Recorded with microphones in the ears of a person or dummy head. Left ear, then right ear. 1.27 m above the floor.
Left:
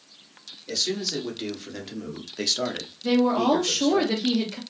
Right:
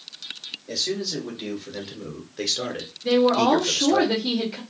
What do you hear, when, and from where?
0.7 s a man speaking: 40° left (ahead or behind), 2.0 m; by 4.0 s 55° right (ahead or behind), 0.7 m
3.0 s a woman speaking: 50° left (ahead or behind), 1.2 m